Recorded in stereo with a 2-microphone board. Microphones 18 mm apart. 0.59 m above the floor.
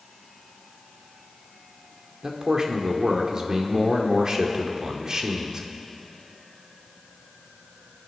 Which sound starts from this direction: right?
A man speaking, at 2.2 s.